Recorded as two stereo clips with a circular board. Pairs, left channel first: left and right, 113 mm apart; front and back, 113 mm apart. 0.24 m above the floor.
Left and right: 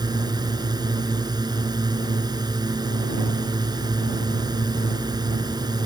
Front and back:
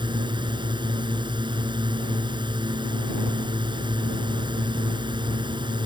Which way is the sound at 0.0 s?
140° right.